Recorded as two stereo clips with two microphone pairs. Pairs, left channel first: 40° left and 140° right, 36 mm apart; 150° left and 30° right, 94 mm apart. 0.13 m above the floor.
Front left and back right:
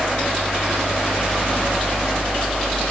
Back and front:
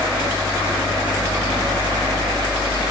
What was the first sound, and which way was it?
Only background noise.